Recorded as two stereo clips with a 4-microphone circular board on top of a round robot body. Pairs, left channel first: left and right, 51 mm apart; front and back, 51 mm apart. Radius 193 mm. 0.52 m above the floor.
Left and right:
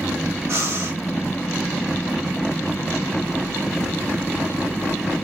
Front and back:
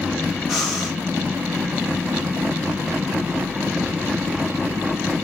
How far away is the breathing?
About 2 m.